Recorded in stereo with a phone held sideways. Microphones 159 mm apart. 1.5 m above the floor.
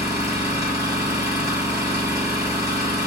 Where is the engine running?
25° right (ahead or behind), 1.2 m.